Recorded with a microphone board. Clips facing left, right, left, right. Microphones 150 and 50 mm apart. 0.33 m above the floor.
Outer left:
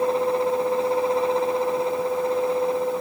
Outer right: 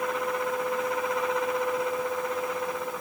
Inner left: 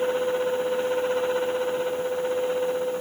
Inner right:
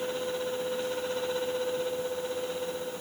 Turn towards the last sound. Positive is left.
No sound to turn to.